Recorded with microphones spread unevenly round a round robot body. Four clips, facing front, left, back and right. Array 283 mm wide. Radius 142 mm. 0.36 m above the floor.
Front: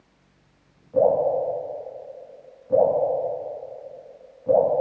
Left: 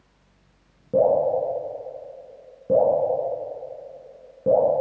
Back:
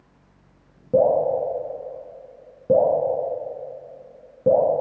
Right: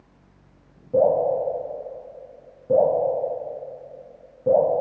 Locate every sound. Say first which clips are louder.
0.9 s dripping: even, back 1 dB; 160° left, 4.5 m